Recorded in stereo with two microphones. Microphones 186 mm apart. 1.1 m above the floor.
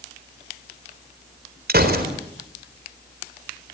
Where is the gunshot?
60° right (ahead or behind), 4 m.